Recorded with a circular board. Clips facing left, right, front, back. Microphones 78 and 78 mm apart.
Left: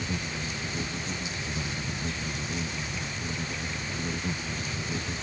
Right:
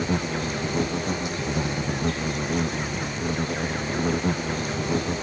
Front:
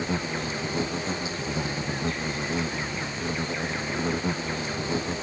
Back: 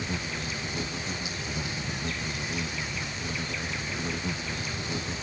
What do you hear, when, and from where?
0.0 s an insect: 60° right